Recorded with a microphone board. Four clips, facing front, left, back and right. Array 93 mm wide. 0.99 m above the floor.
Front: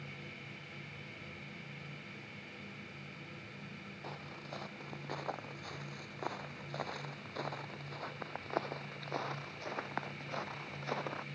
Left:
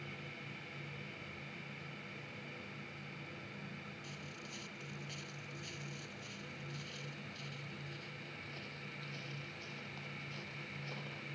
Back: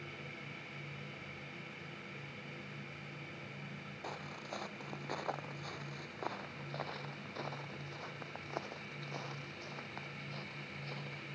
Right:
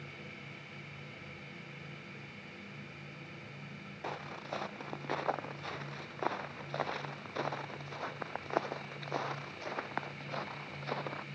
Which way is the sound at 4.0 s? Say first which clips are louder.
Right 10 dB, back 2 dB; 95° right.